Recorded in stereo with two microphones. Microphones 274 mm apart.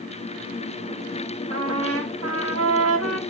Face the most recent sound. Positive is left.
turn(degrees=-60)  # may be behind; listen again after turning